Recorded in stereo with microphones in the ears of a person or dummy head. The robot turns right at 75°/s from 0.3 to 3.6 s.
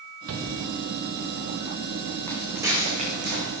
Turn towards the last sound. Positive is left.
turn(degrees=-70)  # may be behind; listen again after turning